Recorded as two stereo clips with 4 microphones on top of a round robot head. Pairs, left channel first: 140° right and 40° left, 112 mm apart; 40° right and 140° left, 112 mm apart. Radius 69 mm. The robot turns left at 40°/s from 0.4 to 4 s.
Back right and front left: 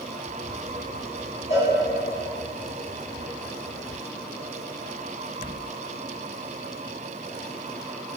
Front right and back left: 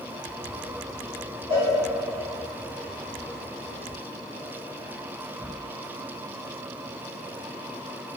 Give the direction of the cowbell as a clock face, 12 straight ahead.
6 o'clock.